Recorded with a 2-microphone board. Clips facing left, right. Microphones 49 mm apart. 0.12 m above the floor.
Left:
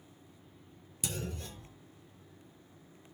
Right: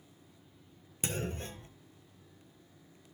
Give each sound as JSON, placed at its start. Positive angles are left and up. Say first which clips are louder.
{"t": 1.0, "sound": "a clunk", "louder": "right 3 dB", "side_deg": -40, "distance_m": 1.2}